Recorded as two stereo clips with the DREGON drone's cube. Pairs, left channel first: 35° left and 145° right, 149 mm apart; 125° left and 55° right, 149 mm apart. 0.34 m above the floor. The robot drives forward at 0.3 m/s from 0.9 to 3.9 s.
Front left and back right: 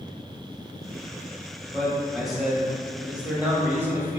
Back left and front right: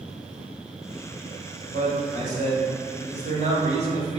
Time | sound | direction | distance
1.7 | a man speaking | 50° right | 2 m